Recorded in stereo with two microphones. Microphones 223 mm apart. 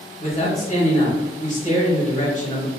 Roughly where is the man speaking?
Left.